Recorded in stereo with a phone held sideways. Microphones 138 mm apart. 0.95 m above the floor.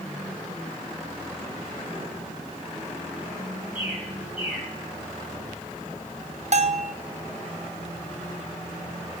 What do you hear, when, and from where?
3.8 s a bird: 75° right (ahead or behind), 4.5 m
6.5 s a bell: 55° right (ahead or behind), 0.6 m